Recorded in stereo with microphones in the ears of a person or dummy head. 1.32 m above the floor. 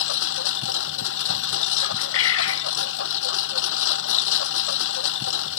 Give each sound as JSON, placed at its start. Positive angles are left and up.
{"t": 0.0, "sound": "a lawn mower", "side_deg": 75}
{"t": 1.8, "sound": "a bird", "side_deg": 85}